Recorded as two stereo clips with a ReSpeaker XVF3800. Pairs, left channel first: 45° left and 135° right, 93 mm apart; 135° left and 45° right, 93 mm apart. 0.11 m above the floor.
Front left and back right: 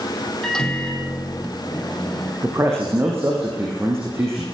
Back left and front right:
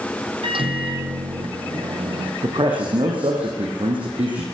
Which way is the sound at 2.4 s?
75° right.